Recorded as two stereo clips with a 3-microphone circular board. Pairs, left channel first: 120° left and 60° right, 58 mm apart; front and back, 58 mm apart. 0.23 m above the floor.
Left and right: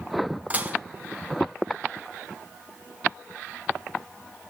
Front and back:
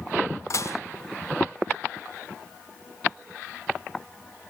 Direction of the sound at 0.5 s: Straight ahead.